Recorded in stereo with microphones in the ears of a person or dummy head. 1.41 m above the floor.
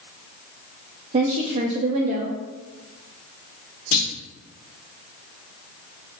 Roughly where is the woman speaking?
Right.